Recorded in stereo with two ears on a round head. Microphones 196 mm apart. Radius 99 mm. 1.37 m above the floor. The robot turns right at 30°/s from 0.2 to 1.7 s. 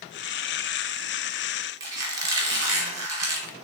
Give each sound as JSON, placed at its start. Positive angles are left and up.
{"t": 1.8, "sound": "a squeak", "side_deg": -15, "distance_m": 1.3}